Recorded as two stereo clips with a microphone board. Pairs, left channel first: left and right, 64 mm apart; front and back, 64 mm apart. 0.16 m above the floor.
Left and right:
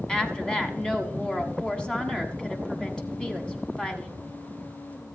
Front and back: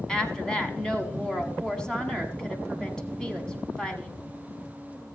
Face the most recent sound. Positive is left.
turn(degrees=45)